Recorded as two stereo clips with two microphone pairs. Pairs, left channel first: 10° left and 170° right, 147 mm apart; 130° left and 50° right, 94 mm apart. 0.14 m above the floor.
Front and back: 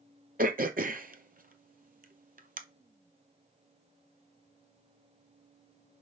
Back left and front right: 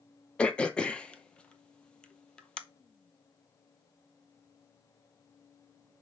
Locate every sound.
0.4 s throat clearing: 150° right, 0.6 m